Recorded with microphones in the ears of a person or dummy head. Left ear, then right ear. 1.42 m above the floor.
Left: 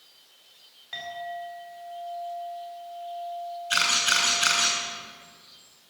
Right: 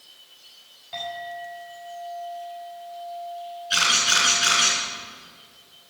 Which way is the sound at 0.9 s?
50° left (ahead or behind).